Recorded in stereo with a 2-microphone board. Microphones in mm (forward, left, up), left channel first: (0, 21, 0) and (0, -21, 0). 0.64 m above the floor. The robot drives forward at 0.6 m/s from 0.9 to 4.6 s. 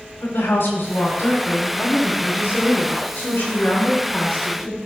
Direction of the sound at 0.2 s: 75° left (ahead or behind).